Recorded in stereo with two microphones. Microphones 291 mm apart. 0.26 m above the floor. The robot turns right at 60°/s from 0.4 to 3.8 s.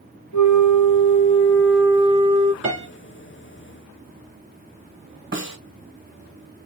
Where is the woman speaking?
No woman speaking in this recording.